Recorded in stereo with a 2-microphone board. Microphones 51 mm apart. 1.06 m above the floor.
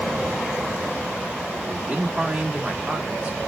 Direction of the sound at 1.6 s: 25° right (ahead or behind).